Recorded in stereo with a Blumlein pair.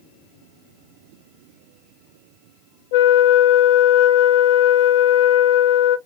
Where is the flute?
50° left, 0.6 m.